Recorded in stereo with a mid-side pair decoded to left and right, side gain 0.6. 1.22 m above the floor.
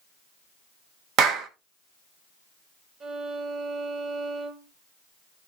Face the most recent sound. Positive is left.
turn(degrees=-40)